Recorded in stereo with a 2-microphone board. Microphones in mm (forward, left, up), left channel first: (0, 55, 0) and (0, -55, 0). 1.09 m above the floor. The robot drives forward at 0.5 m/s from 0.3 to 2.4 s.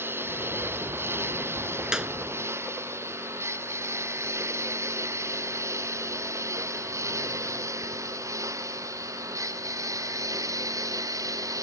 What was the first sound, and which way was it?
A lawn mower, 20° right (ahead or behind).